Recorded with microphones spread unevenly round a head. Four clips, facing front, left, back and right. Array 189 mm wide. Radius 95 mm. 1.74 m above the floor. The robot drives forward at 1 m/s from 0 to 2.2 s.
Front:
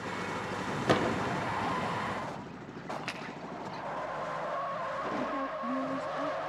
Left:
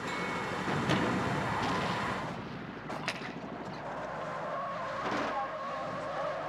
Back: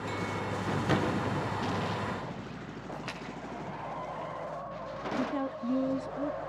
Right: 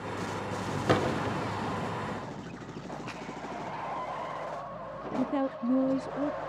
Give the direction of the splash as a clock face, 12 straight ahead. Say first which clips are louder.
Left 2 dB, front 3 dB; 10 o'clock.